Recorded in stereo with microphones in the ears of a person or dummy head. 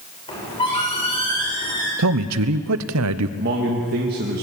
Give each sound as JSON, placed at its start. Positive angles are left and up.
{"t": 0.3, "sound": "a squeak", "side_deg": 25, "distance_m": 5.5}
{"t": 2.0, "sound": "a man speaking", "side_deg": -80, "distance_m": 0.9}
{"t": 3.4, "sound": "a man speaking", "side_deg": -50, "distance_m": 1.9}